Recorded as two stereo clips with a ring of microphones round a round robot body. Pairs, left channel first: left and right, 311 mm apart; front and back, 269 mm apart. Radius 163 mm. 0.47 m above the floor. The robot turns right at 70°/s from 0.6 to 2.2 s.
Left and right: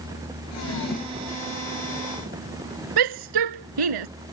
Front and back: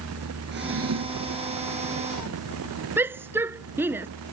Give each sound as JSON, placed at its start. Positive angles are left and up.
{"t": 0.5, "sound": "a drawer", "azimuth_deg": 130}
{"t": 3.0, "sound": "a shout", "azimuth_deg": -95}